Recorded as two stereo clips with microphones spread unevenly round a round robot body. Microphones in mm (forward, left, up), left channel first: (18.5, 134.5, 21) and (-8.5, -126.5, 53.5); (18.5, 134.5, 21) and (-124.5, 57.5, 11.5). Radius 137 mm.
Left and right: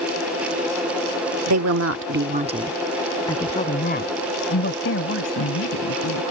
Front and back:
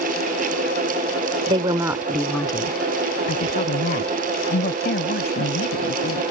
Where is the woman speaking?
95° right; by 6.2 s 45° left.